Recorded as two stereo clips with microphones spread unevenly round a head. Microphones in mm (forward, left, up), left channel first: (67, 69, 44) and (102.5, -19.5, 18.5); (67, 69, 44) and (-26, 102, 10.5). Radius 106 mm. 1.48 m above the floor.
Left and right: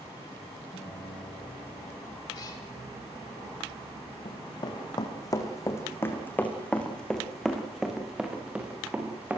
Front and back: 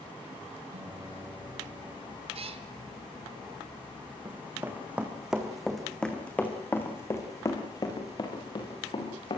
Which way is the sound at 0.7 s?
170° left.